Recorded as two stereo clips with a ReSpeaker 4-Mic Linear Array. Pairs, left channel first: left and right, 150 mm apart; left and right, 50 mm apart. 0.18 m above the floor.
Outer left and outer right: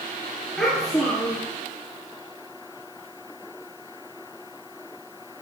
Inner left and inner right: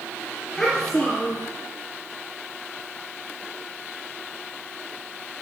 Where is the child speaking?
5° left (ahead or behind), 2.5 m.